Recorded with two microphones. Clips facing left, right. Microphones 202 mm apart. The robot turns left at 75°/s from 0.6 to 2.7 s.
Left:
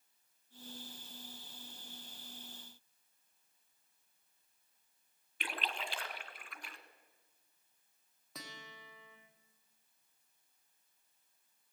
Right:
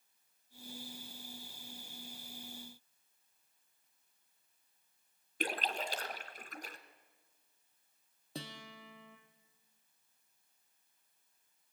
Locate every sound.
5.4 s a splash: 40° right (ahead or behind), 1.4 m
8.3 s a guitar: 30° right (ahead or behind), 2.5 m